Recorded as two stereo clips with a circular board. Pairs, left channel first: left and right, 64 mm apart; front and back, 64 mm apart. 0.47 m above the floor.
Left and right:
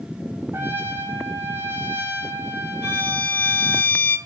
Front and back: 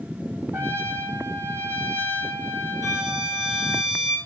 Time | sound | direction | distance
0.5 | a trumpet | 140° right | 1.1 m
2.8 | a violin | 30° left | 2.5 m